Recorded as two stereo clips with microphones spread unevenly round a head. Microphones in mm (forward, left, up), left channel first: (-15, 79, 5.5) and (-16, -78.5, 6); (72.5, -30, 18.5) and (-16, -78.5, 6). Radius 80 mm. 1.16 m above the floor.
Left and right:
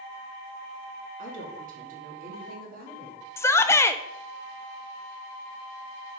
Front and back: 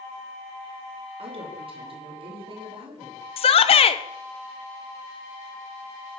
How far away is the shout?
About 0.7 m.